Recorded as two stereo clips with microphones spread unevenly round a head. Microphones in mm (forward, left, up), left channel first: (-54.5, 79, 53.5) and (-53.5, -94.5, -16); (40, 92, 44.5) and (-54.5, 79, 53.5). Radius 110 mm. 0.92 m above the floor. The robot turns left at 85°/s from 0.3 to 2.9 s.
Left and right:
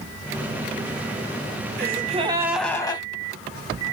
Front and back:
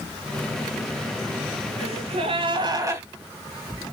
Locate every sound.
1.8 s a gasp: 125° right, 1.3 m; by 3.0 s 140° left, 1.3 m